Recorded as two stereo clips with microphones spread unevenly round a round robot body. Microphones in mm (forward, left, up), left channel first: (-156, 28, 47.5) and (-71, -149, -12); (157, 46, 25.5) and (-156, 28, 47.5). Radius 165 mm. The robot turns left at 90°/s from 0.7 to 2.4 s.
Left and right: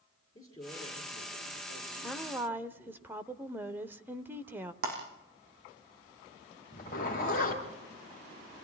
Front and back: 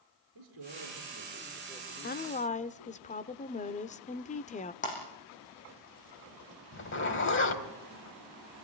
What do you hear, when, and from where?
0.3 s a man speaking: 175° left, 6.5 m; by 3.0 s 20° left, 6.5 m
2.0 s a woman speaking: straight ahead, 0.9 m; by 4.7 s 30° right, 0.9 m
4.8 s breaking glass: 65° right, 7 m
6.7 s a zipper: 50° left, 3 m